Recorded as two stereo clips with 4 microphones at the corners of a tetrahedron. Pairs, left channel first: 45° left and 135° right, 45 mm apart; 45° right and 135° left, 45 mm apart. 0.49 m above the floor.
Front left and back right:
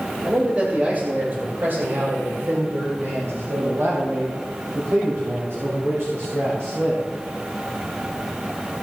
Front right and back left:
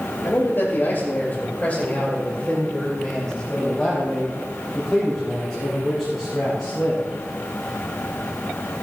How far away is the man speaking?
About 3 m.